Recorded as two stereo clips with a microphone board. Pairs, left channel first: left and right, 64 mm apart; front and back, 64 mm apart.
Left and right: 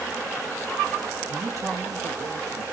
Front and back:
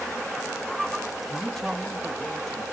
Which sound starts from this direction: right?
A man speaking, at 1.3 s.